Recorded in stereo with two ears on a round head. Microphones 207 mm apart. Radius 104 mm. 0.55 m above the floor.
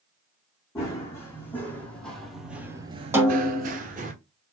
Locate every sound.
0.8 s running footsteps: 10° left (ahead or behind), 2.5 m; by 4.1 s 35° right (ahead or behind), 1.1 m
3.1 s a snare drum: 10° right (ahead or behind), 1.4 m